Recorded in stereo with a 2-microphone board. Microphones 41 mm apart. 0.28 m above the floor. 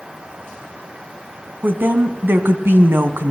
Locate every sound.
1.6 s a woman speaking: 50° right (ahead or behind), 2 m; by 3.3 s 60° right (ahead or behind), 1.9 m